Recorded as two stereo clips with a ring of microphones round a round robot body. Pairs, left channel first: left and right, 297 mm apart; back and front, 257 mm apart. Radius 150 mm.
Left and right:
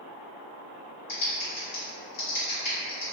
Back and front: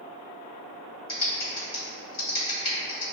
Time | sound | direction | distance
1.1 | typing on a keyboard | 130° left | 1.4 m